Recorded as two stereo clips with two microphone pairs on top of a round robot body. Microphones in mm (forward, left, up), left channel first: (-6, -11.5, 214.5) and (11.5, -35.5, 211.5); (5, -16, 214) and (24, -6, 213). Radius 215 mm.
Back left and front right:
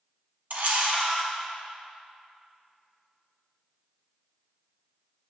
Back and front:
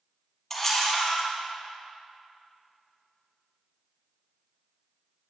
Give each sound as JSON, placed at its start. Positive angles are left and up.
{"t": 0.5, "sound": "a camera shutter", "azimuth_deg": -75, "distance_m": 3.5}